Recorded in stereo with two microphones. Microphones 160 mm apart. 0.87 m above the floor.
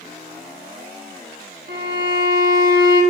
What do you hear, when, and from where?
1.7 s a violin: 75° right (ahead or behind), 0.9 m